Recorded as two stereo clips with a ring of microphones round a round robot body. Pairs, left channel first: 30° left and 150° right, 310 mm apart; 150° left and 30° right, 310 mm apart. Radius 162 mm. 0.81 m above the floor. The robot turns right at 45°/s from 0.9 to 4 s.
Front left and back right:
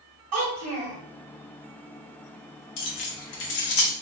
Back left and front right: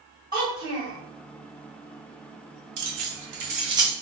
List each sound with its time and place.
0.3 s a child speaking: 110° right, 1.4 m
2.8 s keys jangling: straight ahead, 0.8 m; by 3.9 s 55° left, 0.8 m